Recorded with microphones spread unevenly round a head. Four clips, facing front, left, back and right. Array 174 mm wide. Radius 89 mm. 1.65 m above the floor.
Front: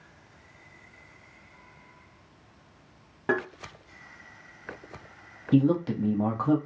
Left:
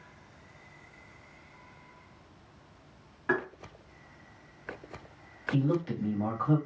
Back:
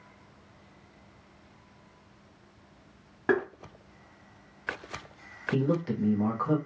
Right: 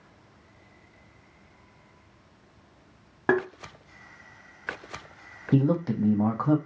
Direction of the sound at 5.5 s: 60° right.